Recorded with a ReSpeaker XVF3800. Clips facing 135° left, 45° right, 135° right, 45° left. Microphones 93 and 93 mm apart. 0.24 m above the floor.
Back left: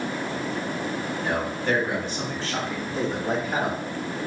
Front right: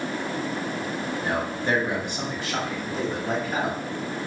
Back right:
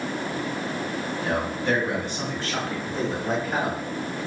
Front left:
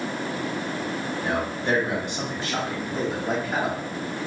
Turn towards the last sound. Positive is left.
turn(degrees=145)